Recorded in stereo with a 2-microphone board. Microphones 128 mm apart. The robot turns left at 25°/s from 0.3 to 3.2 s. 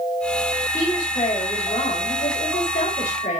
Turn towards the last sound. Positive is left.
turn(degrees=85)